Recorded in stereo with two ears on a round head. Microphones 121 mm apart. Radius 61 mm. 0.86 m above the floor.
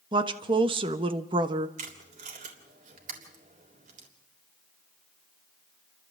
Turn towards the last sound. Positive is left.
turn(degrees=-60)  # may be behind; listen again after turning